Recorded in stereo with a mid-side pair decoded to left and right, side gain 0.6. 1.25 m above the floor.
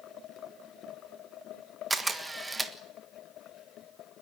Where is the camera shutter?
15° right, 1.5 m.